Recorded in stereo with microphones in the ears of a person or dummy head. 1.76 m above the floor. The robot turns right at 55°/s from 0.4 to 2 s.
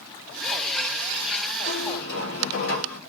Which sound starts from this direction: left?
A squeak, at 1.7 s.